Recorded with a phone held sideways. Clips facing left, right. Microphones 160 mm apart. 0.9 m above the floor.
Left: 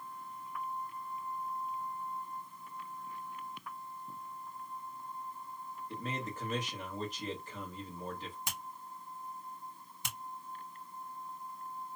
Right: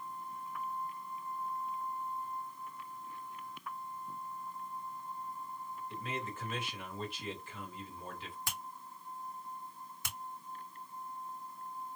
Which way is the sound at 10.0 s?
20° left (ahead or behind).